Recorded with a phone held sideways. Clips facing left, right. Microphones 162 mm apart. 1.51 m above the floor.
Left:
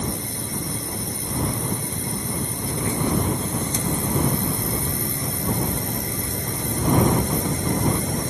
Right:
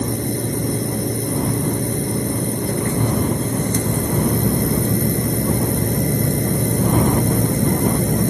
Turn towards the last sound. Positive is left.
turn(degrees=-60)  # may be behind; listen again after turning